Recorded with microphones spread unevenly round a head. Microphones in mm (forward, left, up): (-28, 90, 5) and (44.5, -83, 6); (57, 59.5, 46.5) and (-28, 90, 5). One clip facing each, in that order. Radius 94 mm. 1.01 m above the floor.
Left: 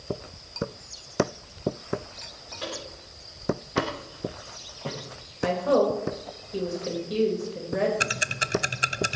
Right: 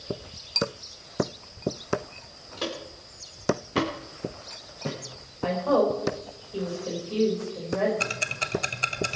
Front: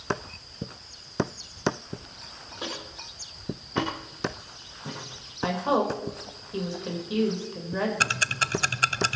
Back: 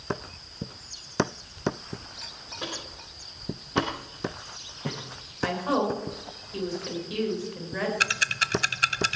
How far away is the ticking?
About 0.7 m.